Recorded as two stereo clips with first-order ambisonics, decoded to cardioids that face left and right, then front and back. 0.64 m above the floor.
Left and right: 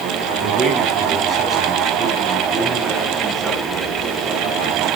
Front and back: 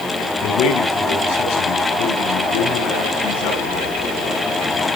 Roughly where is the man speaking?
Ahead right.